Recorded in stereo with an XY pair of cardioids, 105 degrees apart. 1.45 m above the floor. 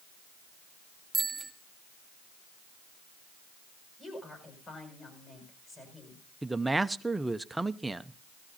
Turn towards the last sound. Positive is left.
turn(degrees=-10)